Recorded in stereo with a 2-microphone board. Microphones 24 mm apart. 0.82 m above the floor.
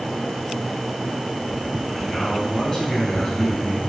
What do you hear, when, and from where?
1.9 s a man speaking: 20° left (ahead or behind), 5.5 m